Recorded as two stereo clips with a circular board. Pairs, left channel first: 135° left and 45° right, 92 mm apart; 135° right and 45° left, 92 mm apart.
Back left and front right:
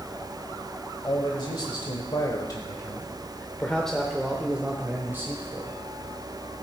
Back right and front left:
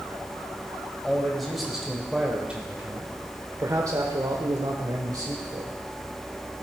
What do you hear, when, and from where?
1.0 s a man speaking: 140° left, 1.6 m; by 5.7 s 10° left, 1.5 m